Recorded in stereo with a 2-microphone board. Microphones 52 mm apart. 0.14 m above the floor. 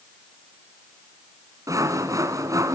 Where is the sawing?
85° right, 2 m.